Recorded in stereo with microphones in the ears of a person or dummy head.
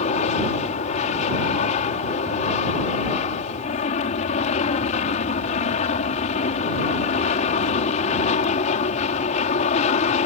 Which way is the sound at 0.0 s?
35° left (ahead or behind).